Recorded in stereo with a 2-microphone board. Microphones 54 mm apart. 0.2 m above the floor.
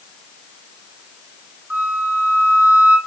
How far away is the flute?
About 2.0 m.